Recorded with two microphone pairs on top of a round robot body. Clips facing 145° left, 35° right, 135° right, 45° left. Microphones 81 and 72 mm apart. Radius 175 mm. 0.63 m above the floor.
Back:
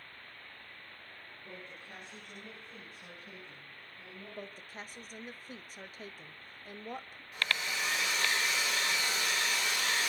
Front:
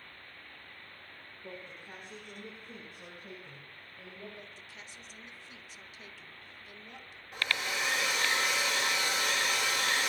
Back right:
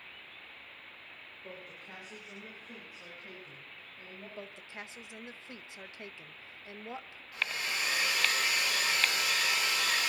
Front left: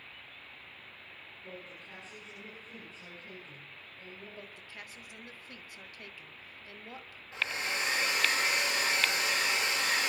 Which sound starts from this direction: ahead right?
A woman speaking, at 1.4 s.